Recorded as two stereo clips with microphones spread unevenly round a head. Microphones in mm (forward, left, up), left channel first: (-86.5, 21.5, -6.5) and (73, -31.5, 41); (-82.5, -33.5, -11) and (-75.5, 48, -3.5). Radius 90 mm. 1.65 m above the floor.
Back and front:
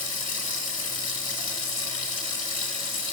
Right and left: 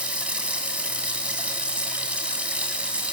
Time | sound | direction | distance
0.0 | running water | 155° left | 2.5 m